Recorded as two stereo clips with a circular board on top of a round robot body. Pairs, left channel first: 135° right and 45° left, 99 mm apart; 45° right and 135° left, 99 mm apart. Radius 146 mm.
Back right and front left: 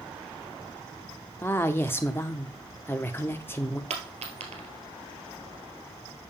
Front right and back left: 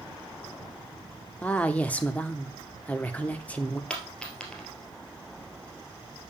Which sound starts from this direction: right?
A woman speaking, at 1.4 s.